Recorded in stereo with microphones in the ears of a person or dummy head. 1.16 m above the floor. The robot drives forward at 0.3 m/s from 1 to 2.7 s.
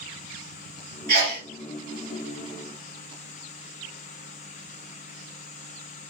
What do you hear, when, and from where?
1.1 s a sneeze: 50° right (ahead or behind), 1.4 m